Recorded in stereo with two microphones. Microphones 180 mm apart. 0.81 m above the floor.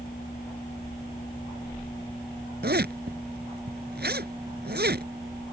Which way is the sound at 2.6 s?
65° right (ahead or behind).